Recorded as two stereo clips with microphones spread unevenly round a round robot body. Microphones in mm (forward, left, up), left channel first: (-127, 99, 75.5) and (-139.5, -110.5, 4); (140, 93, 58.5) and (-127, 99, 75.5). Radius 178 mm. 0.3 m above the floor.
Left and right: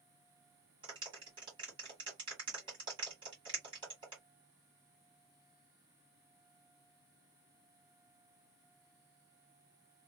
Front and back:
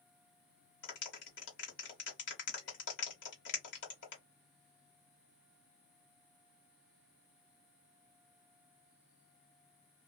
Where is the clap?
40° right, 1.4 m.